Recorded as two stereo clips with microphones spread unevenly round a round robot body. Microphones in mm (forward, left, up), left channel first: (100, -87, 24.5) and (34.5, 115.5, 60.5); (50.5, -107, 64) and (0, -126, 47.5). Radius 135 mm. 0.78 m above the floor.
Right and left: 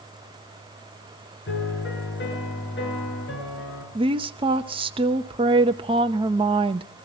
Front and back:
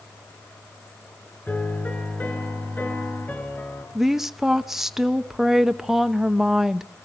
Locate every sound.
1.5 s a piano: 40° right, 6 m
4.0 s a woman speaking: 165° left, 0.7 m